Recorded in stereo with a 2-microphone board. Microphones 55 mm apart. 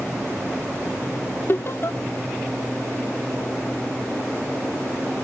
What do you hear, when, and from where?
1.5 s laughter: 50° left (ahead or behind)